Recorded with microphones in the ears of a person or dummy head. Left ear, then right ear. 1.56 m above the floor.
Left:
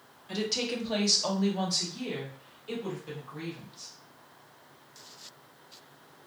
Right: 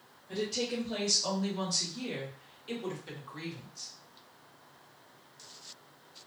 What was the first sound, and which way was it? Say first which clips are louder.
A woman speaking: left 2 dB; 65° left (ahead or behind).